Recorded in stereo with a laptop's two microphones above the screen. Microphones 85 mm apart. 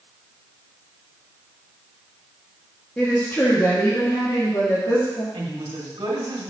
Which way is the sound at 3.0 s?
15° left (ahead or behind).